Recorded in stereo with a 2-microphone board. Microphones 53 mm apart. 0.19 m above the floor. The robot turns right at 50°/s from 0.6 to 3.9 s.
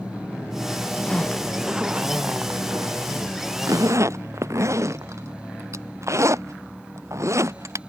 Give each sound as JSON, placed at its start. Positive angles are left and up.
{"t": 1.1, "sound": "a zipper", "side_deg": 20}